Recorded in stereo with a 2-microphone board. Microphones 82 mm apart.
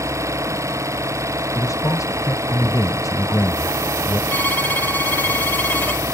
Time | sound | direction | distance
0.0 | an engine running | 35° right (ahead or behind) | ?
1.6 | a man speaking | 45° left (ahead or behind) | ?
4.3 | a violin | 25° left (ahead or behind) | ?